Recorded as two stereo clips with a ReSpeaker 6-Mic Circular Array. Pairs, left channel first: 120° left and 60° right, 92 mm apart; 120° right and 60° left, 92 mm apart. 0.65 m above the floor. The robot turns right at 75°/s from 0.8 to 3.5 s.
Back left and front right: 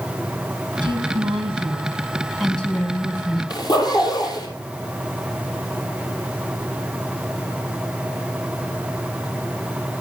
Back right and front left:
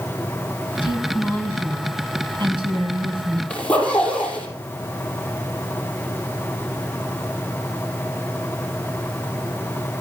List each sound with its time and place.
0.8 s a woman speaking: 95° right, 4.5 m; by 3.4 s 100° left, 4.5 m
3.5 s a zipper: 165° left, 6 m